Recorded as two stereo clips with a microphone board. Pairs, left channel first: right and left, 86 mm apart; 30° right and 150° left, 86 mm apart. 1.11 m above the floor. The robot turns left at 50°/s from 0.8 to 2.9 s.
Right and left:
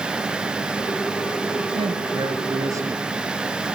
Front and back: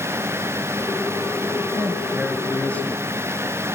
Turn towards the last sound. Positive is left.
turn(degrees=35)